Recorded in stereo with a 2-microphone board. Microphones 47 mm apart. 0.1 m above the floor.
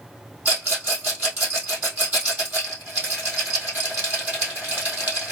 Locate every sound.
0.5 s a rattle: 35° right (ahead or behind), 2 m